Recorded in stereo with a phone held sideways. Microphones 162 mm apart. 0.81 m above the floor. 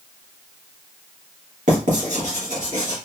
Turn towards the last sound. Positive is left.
turn(degrees=-55)  # may be behind; listen again after turning